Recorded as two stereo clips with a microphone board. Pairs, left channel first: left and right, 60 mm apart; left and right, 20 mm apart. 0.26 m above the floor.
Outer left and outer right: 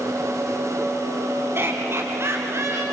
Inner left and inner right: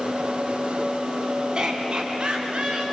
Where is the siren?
No siren in this recording.